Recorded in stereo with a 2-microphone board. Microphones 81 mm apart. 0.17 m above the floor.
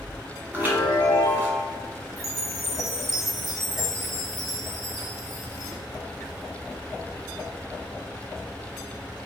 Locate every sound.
0.5 s a chime: 20° right (ahead or behind), 1.1 m
2.2 s a chime: centre (ahead or behind), 1.1 m